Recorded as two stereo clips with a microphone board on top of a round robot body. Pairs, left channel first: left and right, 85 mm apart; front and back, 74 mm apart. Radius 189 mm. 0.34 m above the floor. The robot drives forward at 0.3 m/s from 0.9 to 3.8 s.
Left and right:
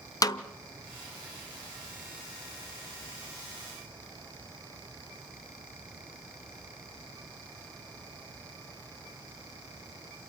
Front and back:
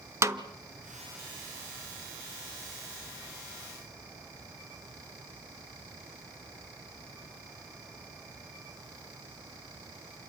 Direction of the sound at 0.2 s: 135° left.